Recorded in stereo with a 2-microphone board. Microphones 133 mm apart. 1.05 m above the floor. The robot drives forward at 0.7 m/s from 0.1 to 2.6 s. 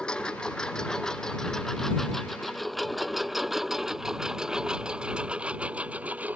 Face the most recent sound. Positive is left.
turn(degrees=-10)  # may be behind; listen again after turning